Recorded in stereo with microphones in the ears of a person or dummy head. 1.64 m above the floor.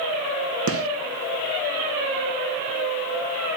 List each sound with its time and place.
0.7 s a gunshot: 80° right, 1.6 m